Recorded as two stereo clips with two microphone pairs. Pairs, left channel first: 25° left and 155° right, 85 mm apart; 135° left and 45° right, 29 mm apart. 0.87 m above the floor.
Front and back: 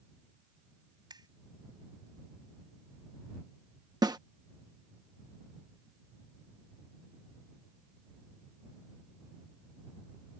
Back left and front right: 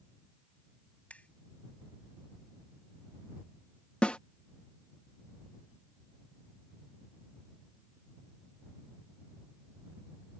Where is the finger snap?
170° left.